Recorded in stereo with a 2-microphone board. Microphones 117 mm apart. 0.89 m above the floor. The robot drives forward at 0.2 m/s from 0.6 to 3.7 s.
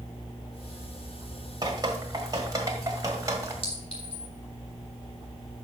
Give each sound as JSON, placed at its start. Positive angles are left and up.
{"t": 1.6, "sound": "dripping", "side_deg": -35, "distance_m": 1.5}
{"t": 3.6, "sound": "a clink", "side_deg": 50, "distance_m": 2.5}